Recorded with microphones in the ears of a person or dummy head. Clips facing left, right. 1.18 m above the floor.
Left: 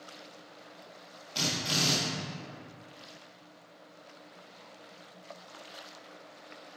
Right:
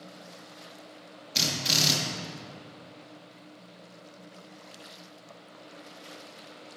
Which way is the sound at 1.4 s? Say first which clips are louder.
Right 1 dB; 25° right (ahead or behind).